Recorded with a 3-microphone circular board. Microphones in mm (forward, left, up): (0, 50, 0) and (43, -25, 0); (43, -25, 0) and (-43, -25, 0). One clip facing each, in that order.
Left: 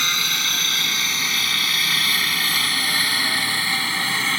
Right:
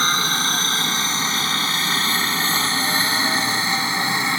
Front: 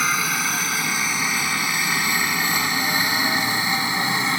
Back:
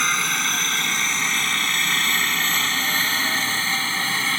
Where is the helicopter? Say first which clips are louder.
Right 5 dB, front 1 dB; 80° right; by 4.4 s 30° right.